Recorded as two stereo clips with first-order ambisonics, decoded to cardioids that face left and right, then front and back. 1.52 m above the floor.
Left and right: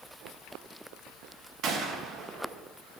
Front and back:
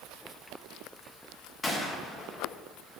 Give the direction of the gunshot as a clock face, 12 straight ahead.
2 o'clock.